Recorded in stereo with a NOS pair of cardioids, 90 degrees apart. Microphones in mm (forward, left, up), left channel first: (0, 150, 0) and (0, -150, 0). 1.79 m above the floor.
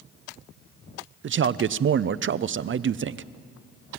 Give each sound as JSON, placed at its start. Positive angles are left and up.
{"t": 1.2, "sound": "a man speaking", "azimuth_deg": -45, "distance_m": 0.7}